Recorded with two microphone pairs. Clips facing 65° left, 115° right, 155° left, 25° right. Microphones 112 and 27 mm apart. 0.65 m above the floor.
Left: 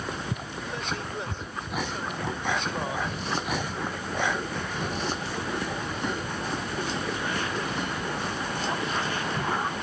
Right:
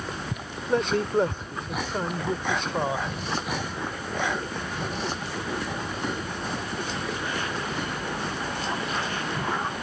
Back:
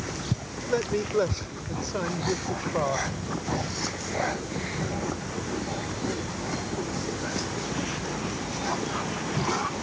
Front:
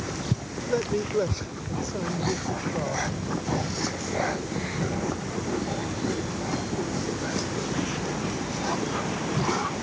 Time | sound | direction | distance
0.7 | a man speaking | 130° right | ?